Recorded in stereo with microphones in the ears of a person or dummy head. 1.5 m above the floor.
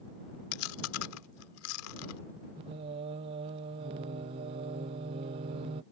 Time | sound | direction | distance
0.5 | chewing | 80° left | ?
2.6 | singing | 25° right (ahead or behind) | ?